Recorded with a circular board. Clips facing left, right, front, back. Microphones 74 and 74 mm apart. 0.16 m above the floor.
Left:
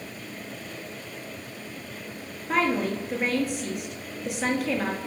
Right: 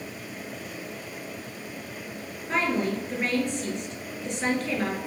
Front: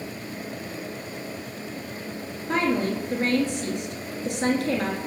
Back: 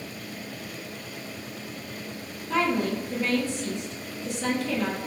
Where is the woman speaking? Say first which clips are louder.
Left 1 dB, front 1 dB; 5° left, 2 m.